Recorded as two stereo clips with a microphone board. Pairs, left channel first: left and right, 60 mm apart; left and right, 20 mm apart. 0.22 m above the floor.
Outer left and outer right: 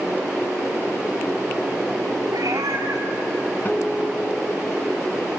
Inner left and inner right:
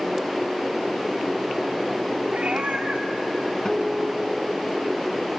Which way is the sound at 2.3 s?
85° right.